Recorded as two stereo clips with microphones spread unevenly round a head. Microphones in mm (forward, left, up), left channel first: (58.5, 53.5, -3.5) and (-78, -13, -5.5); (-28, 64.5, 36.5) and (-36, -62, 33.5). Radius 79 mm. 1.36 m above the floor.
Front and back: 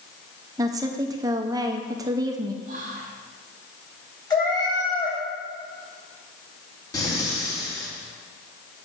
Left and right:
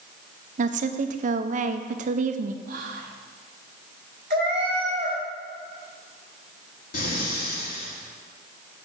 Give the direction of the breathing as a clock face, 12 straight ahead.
9 o'clock.